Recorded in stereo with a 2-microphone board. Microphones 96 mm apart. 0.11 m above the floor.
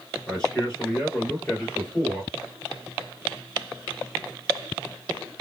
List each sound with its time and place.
0.3 s a man speaking: 10° left (ahead or behind), 1.8 m; by 2.3 s 20° left (ahead or behind), 2.5 m